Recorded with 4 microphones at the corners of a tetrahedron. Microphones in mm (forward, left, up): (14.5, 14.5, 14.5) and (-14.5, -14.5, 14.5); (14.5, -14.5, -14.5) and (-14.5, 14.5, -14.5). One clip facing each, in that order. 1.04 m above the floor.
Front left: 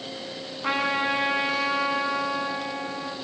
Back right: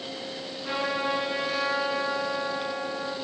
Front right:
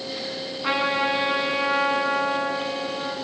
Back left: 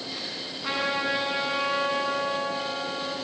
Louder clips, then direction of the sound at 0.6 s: Front left 4 dB, front right 4 dB; 15° left.